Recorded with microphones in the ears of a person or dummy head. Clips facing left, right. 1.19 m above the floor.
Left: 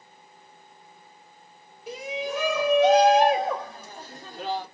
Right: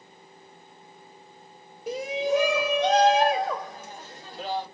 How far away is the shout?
About 0.7 m.